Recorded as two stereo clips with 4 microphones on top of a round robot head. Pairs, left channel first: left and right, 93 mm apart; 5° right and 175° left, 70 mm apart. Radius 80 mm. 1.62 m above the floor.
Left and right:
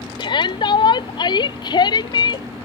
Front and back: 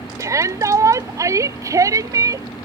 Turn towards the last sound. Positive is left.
turn(degrees=135)